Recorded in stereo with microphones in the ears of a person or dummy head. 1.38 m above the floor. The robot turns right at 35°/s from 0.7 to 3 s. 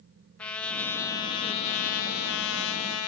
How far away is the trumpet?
About 0.5 m.